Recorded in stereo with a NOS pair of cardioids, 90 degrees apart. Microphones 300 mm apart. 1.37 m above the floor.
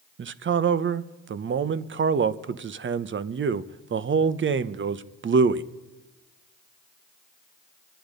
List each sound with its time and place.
0.2 s a man speaking: 40° right, 1.0 m